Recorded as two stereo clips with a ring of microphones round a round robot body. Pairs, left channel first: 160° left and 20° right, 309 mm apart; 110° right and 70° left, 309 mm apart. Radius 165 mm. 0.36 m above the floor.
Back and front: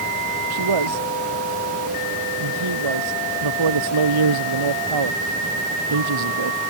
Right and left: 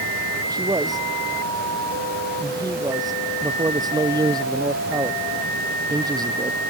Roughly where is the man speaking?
Ahead.